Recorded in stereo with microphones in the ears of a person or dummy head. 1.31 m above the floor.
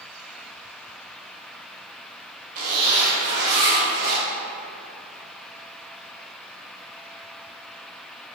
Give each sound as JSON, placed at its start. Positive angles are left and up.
{"t": 2.5, "sound": "a zipper", "side_deg": -45, "distance_m": 2.0}